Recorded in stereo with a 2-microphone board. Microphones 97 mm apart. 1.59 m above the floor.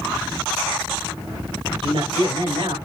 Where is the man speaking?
60° right (ahead or behind), 8.5 m.